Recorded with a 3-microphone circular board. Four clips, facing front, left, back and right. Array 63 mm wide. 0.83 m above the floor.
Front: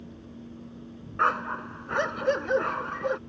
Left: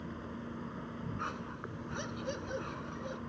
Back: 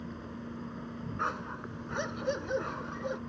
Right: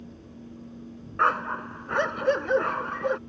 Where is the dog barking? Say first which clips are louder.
Right 20 dB, front 10 dB; 60° right.